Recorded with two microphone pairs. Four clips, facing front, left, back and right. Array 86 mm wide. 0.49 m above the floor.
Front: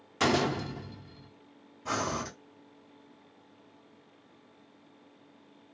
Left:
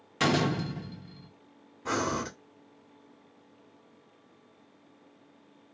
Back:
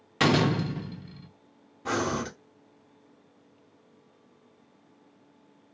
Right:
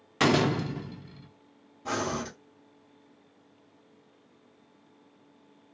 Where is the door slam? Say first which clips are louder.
Right 3 dB, back 4 dB; 120° right, 0.6 m.